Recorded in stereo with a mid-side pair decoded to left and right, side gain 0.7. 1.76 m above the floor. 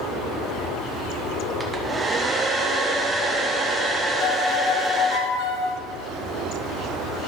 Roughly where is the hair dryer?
Ahead.